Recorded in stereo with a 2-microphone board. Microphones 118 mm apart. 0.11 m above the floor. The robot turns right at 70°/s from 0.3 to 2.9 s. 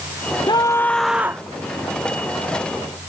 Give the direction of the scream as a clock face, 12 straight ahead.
7 o'clock.